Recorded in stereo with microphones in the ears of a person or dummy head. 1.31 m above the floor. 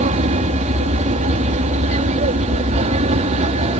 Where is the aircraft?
40° right (ahead or behind); by 3.8 s 35° right (ahead or behind).